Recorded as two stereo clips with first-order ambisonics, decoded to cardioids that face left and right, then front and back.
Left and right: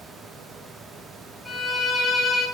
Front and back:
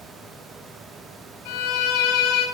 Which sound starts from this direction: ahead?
A violin, at 1.4 s.